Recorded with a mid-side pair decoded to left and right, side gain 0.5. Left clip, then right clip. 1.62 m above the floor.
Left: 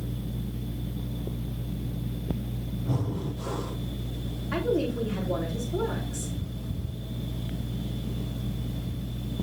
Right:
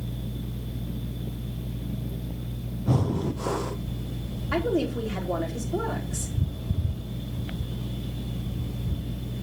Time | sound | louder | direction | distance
2.9 | breathing | right 6 dB | 50° right | 0.9 m
4.5 | a woman speaking | right 1 dB | 50° right | 3.5 m